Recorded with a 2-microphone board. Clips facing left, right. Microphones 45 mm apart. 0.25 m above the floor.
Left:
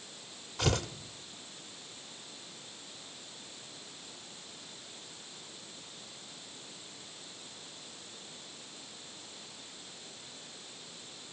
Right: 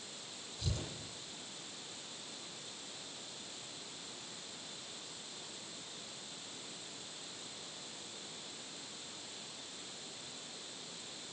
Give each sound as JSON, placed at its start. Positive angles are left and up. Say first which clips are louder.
{"t": 0.6, "sound": "tearing paper", "louder": "left 12 dB", "side_deg": 80, "distance_m": 1.7}